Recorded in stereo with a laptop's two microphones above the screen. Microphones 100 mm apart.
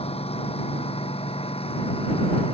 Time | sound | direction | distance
0.0 | a lawn mower | 80° left | ?